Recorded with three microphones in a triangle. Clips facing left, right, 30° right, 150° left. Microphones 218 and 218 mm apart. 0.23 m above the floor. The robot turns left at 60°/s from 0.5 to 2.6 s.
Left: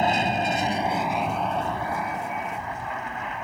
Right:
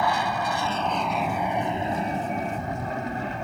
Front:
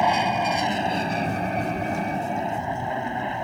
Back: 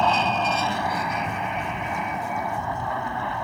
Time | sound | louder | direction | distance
0.0 | an aircraft | left 2 dB, front 1 dB | 40° left | ?